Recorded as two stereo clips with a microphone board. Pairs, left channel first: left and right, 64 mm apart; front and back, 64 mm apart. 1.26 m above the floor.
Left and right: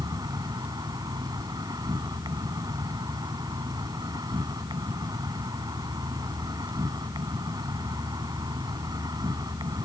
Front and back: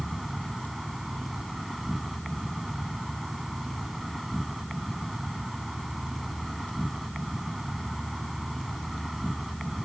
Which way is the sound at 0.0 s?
95° right.